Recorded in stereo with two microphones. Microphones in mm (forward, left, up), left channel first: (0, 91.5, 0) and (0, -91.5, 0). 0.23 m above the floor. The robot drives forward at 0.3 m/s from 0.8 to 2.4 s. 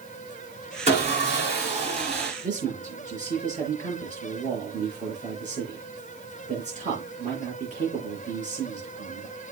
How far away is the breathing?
No breathing in this recording.